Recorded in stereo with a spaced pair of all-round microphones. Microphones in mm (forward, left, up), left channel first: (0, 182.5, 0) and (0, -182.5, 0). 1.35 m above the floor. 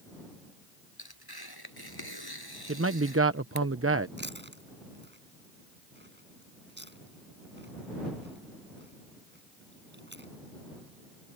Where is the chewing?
30° right (ahead or behind).